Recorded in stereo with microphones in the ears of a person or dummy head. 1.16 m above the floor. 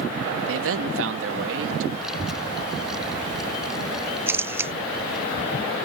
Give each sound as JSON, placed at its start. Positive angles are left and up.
{"t": 0.5, "sound": "a man speaking", "side_deg": -80}
{"t": 2.0, "sound": "a child speaking", "side_deg": -5}
{"t": 4.3, "sound": "a camera shutter", "side_deg": -15}